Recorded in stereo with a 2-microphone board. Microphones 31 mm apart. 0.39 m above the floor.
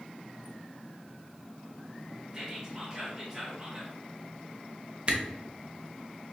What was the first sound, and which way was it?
Whispering, 20° right (ahead or behind).